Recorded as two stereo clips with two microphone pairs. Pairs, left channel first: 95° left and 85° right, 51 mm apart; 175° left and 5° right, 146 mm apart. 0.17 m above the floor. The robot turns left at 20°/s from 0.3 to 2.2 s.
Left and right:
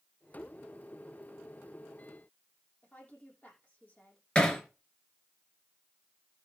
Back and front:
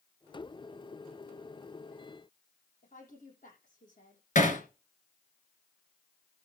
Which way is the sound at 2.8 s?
155° left.